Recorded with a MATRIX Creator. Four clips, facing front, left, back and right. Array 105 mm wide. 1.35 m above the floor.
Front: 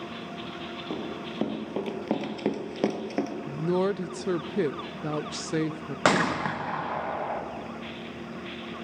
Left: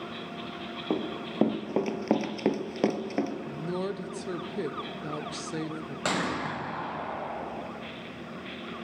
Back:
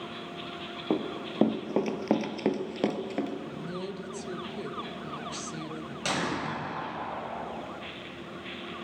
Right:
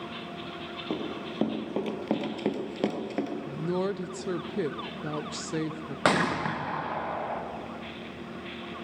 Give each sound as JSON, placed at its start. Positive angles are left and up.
{"t": 0.9, "sound": "running footsteps", "azimuth_deg": 150, "distance_m": 1.6}
{"t": 3.5, "sound": "a woman speaking", "azimuth_deg": -15, "distance_m": 0.6}
{"t": 6.0, "sound": "a gunshot", "azimuth_deg": -30, "distance_m": 2.0}